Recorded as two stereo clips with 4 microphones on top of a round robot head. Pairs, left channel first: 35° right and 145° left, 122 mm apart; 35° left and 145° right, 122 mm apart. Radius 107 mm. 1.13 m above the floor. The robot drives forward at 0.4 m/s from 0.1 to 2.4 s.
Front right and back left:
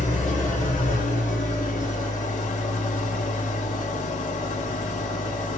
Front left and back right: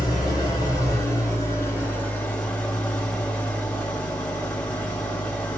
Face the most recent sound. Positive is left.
turn(degrees=-45)